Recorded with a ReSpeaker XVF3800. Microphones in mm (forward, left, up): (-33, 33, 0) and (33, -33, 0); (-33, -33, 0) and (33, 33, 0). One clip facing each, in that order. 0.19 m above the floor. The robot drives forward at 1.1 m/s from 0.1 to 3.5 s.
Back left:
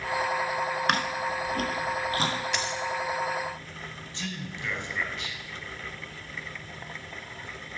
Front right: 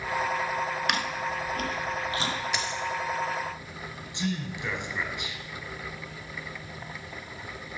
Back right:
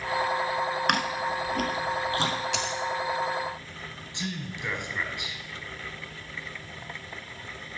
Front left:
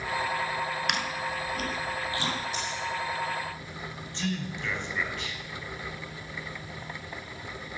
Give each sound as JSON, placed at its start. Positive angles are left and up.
{"t": 0.9, "sound": "chewing", "azimuth_deg": -175, "distance_m": 0.8}
{"t": 2.5, "sound": "a dropped coin", "azimuth_deg": -135, "distance_m": 1.2}
{"t": 4.1, "sound": "a man speaking", "azimuth_deg": -85, "distance_m": 1.3}